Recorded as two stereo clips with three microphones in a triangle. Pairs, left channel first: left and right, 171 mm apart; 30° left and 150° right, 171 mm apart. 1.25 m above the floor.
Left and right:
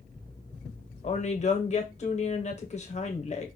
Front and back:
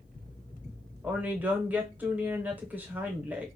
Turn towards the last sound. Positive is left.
turn(degrees=130)